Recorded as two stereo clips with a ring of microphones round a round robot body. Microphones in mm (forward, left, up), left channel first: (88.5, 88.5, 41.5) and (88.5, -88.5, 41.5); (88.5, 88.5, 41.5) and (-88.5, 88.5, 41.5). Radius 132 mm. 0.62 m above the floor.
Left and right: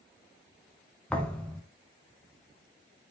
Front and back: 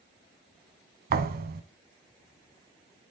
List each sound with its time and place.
1.1 s a thud: 175° left, 0.7 m